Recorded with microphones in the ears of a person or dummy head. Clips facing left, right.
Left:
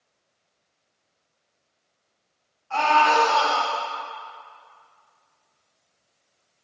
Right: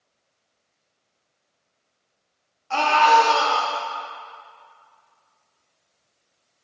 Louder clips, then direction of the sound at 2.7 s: Right 2 dB; 55° right (ahead or behind).